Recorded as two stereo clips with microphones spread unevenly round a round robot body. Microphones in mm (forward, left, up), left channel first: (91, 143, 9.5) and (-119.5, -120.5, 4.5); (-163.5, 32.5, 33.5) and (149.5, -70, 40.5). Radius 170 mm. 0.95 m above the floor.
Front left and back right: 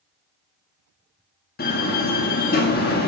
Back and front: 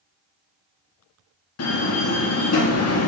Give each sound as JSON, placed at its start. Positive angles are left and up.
{"t": 1.6, "sound": "a door slam", "azimuth_deg": 115, "distance_m": 1.5}